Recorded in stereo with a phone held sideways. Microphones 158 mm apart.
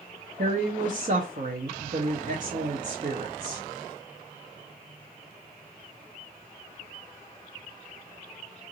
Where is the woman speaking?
55° right (ahead or behind), 0.7 m.